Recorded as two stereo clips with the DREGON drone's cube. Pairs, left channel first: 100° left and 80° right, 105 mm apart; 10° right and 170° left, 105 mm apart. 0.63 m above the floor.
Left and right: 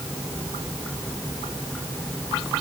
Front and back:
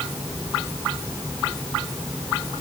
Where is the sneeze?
No sneeze in this recording.